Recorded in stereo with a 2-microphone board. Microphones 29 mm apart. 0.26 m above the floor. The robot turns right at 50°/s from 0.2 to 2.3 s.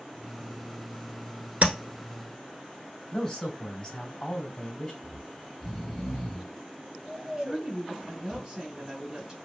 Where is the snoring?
Centre (ahead or behind), 1.3 m.